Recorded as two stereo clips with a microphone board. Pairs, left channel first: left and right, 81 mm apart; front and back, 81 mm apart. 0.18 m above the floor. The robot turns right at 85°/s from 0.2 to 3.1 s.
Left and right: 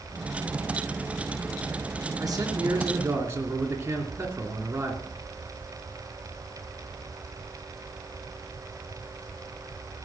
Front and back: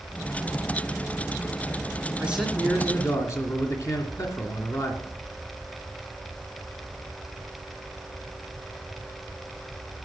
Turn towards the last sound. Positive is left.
turn(degrees=-40)